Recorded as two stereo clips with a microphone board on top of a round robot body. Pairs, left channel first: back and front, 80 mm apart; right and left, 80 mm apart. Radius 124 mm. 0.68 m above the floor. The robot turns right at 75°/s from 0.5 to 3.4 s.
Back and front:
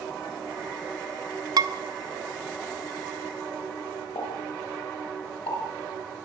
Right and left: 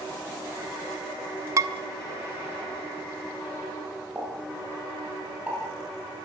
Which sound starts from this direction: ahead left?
Dishes clattering, at 1.6 s.